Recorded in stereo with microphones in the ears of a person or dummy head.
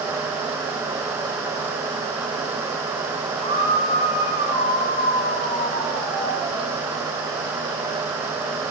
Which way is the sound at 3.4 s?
30° left (ahead or behind).